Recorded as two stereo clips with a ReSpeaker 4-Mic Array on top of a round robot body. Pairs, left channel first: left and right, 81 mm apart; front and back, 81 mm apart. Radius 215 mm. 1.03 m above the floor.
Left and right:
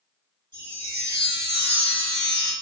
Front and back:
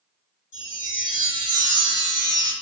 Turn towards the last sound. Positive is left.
turn(degrees=45)